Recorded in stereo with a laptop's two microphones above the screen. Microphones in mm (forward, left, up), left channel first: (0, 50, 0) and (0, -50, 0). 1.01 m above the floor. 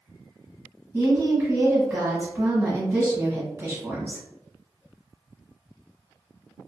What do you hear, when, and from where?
0.9 s a woman speaking: 20° right (ahead or behind), 1.1 m